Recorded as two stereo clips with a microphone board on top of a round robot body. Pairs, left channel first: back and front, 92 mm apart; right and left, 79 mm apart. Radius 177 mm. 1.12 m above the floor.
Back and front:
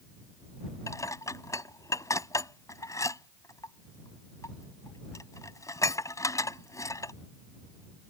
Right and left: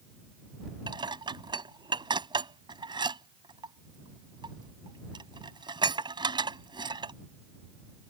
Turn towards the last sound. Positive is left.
turn(degrees=120)